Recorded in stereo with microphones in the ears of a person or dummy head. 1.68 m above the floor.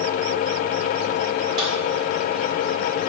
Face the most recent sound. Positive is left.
turn(degrees=-30)  # may be behind; listen again after turning